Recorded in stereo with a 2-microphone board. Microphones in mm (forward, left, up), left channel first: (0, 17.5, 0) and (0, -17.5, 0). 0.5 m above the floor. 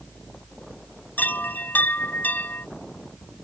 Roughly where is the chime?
Left.